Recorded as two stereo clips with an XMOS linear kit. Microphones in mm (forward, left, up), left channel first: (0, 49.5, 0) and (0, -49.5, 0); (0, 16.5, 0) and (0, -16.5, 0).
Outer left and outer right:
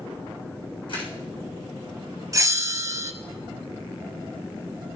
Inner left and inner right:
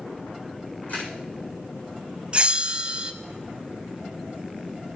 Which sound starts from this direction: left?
A camera shutter, at 0.9 s.